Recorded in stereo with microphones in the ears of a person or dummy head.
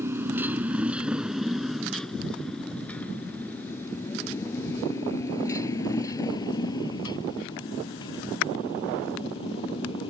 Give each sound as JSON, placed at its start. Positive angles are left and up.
{"t": 0.0, "sound": "a motorcycle", "side_deg": -15}